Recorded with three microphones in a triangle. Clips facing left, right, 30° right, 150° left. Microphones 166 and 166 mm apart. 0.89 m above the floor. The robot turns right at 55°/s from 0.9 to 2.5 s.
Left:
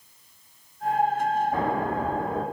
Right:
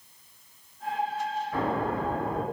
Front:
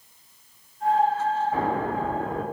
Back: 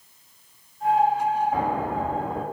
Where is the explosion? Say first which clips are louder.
Left 2 dB, even; 85° left, 0.9 m; by 2.4 s 135° left, 0.9 m.